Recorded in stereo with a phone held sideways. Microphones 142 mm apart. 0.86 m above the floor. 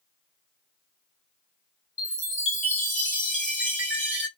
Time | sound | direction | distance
2.0 | a chime | 10° right (ahead or behind) | 1.4 m